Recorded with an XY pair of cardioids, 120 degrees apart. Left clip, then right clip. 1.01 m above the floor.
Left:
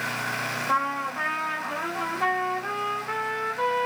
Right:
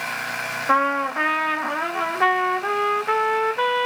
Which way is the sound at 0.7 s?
50° right.